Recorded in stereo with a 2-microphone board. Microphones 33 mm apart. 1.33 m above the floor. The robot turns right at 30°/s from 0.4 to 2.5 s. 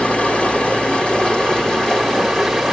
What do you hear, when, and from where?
0.0 s running water: 100° left, 1.3 m; by 2.7 s 160° left, 1.3 m